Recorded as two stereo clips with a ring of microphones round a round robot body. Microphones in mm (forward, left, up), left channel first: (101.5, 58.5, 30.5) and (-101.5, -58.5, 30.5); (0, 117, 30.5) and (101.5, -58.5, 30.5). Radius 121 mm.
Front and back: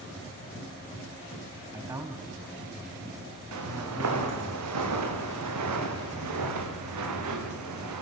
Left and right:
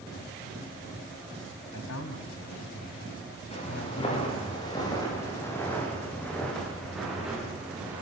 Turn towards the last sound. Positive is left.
turn(degrees=-145)